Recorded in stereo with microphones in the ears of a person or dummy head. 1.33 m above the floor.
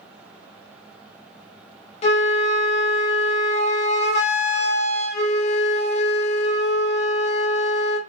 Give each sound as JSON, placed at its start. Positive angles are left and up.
{"t": 2.0, "sound": "a flute", "side_deg": 35, "distance_m": 0.7}